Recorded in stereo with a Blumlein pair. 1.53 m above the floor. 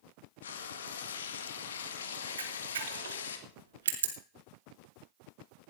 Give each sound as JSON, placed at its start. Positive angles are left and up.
{"t": 0.4, "sound": "frying", "azimuth_deg": 65, "distance_m": 2.0}
{"t": 2.4, "sound": "a camera shutter", "azimuth_deg": -60, "distance_m": 2.5}